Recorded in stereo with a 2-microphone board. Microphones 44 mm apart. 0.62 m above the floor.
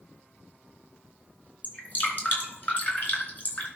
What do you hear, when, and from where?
1.6 s dripping: 40° left (ahead or behind), 4 m